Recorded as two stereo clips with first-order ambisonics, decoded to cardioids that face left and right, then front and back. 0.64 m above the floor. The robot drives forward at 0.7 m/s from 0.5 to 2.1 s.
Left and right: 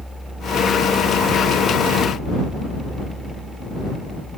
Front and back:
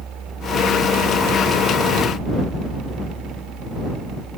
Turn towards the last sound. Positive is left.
No sound to turn to.